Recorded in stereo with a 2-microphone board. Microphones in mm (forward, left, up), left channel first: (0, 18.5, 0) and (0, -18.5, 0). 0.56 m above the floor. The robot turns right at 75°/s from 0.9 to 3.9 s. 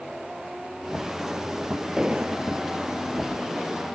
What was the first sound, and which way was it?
An explosion, 160° right.